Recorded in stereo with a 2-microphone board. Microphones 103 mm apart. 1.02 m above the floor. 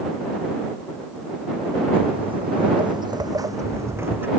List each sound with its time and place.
1.9 s footsteps: 70° right (ahead or behind); by 4.3 s 20° right (ahead or behind)